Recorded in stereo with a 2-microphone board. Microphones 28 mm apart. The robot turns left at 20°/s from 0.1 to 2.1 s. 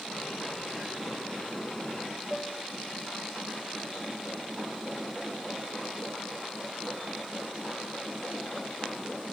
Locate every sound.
2.3 s a piano: centre (ahead or behind), 4.5 m